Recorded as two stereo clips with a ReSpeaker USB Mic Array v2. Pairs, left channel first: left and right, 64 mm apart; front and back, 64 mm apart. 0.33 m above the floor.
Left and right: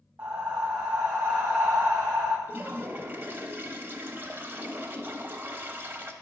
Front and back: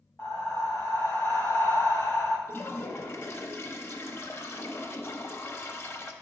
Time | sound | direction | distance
0.2 | breathing | 45° right | 1.6 m
2.5 | a toilet flushing | 40° right | 0.7 m